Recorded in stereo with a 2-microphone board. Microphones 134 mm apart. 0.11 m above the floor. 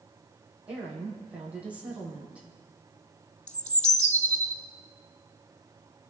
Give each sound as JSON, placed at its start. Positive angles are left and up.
{"t": 0.7, "sound": "a woman speaking", "side_deg": -10, "distance_m": 5.0}
{"t": 3.5, "sound": "a bird", "side_deg": 65, "distance_m": 0.9}